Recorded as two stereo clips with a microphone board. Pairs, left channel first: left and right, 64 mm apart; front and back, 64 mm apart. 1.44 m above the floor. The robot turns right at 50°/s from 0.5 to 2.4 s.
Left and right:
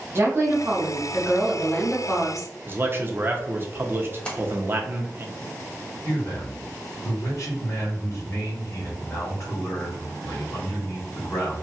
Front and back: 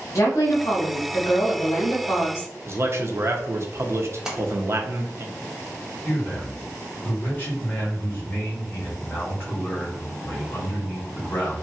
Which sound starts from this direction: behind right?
A man speaking, at 2.7 s.